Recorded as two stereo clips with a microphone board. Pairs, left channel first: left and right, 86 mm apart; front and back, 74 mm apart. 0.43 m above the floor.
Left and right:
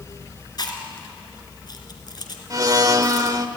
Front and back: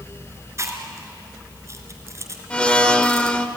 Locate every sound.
0.6 s chewing: 130° left, 3 m
2.5 s a blender: 70° right, 1.1 m